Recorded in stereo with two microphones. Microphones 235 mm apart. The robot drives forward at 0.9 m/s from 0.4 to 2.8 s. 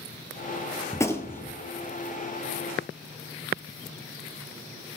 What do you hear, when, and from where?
0.9 s a gunshot: 10° left (ahead or behind), 1.0 m